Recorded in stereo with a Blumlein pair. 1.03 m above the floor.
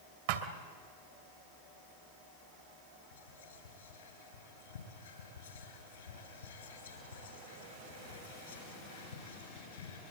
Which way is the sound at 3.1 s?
65° left.